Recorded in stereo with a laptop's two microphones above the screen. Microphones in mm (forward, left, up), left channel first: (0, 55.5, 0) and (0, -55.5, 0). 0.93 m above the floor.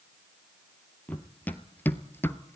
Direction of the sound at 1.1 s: 15° left (ahead or behind).